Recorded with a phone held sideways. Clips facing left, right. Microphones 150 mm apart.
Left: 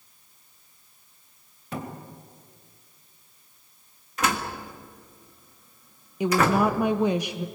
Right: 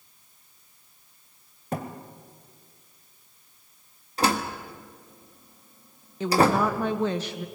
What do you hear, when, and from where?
1.7 s a thud: 45° right (ahead or behind), 2 m
4.2 s a door slam: 35° right (ahead or behind), 1.7 m
6.2 s a woman speaking: 10° left (ahead or behind), 0.7 m